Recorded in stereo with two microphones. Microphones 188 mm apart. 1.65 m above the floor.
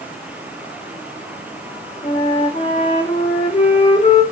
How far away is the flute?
About 2.5 m.